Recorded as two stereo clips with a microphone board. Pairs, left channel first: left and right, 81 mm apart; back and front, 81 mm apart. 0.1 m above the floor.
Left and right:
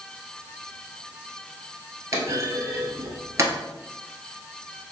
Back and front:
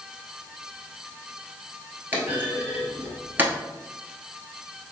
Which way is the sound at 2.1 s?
55° right.